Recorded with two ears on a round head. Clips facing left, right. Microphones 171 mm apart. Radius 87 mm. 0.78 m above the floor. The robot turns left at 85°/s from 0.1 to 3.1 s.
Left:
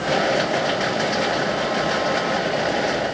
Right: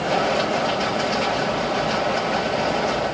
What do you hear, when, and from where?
Only background noise.